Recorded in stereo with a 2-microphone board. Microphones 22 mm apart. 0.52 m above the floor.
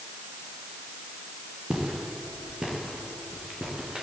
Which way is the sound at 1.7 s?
50° right (ahead or behind).